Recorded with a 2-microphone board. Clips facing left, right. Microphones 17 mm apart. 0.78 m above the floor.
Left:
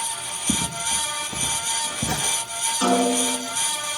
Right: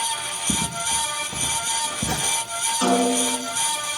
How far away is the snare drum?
About 8 m.